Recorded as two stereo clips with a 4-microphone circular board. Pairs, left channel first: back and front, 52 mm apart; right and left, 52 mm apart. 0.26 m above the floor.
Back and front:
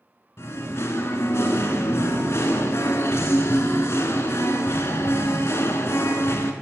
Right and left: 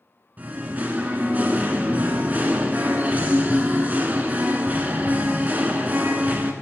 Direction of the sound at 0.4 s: 145° left.